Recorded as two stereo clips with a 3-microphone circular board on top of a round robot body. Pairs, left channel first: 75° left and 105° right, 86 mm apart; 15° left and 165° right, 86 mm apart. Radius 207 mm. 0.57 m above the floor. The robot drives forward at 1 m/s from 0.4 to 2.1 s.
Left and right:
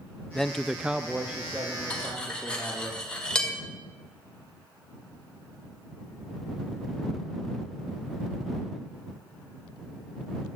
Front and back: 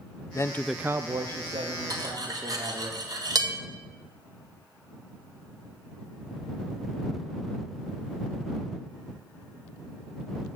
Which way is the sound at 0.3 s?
5° right.